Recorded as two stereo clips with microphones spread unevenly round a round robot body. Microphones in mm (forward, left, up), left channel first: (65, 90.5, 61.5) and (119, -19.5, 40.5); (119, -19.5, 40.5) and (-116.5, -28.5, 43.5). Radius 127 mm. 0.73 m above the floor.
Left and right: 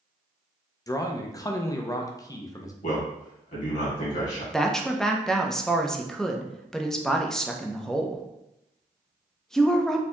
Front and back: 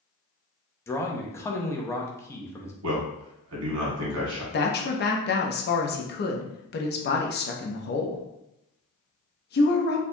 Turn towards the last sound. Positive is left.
turn(degrees=20)